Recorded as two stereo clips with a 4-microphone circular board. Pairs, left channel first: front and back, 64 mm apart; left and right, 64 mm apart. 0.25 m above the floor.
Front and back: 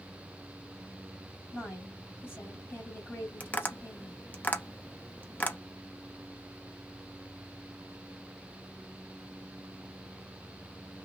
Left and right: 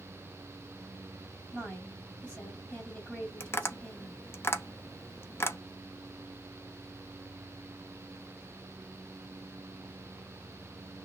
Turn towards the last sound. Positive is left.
turn(degrees=55)